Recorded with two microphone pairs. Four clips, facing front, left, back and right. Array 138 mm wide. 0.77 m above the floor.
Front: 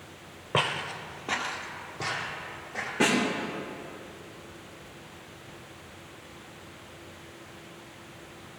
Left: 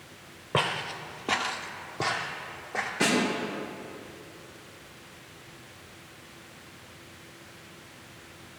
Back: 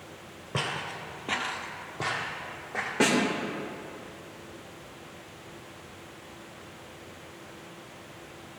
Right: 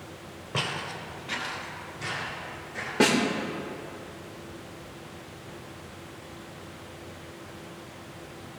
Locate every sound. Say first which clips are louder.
0.5 s footsteps: left 4 dB, front 4 dB; 35° left, 1.2 m; by 2.9 s 125° left, 3 m
3.0 s a snare drum: right 4 dB, back 1 dB; 115° right, 2.5 m